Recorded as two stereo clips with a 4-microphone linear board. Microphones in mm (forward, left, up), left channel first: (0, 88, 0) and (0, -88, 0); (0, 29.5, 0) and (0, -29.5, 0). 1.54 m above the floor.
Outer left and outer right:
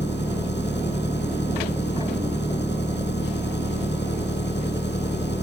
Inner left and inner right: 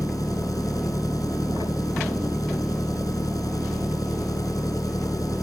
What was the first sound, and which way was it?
An engine running, 80° left.